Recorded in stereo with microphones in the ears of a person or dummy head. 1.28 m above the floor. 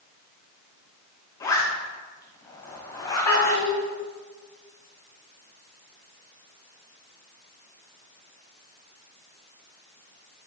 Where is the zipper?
20° left (ahead or behind), 1.8 m.